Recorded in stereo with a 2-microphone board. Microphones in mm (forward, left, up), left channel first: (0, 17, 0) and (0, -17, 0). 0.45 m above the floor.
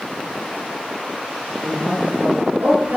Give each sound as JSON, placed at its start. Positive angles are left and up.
{"t": 1.6, "sound": "a woman speaking", "side_deg": -70, "distance_m": 8.0}